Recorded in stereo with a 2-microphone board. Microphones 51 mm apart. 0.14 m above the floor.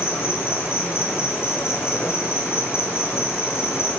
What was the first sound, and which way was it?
An insect, 55° left (ahead or behind).